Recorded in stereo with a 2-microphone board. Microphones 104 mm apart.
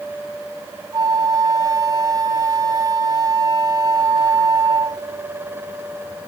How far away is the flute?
About 0.6 m.